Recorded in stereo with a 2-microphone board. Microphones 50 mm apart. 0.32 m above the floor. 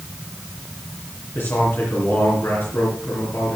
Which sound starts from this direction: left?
A man speaking, at 1.4 s.